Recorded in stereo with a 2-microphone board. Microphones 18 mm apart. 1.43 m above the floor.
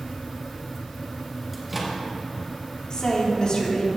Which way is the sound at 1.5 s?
Centre (ahead or behind).